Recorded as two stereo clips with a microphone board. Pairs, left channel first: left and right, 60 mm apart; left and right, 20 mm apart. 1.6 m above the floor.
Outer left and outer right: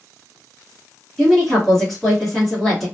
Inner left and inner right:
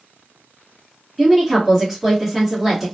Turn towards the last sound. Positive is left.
turn(degrees=5)  # may be behind; listen again after turning